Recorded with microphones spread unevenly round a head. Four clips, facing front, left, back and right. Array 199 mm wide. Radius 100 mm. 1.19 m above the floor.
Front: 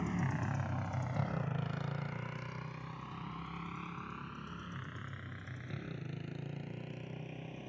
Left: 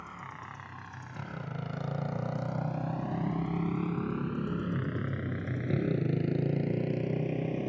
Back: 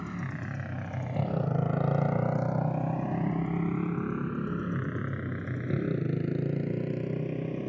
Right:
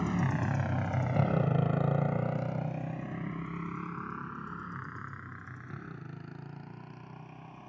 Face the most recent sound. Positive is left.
turn(degrees=135)